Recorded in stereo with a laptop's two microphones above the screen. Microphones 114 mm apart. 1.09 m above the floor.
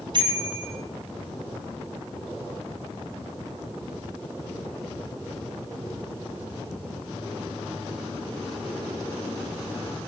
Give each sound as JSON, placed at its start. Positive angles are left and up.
{"t": 0.1, "sound": "a bicycle bell", "side_deg": -45, "distance_m": 8.0}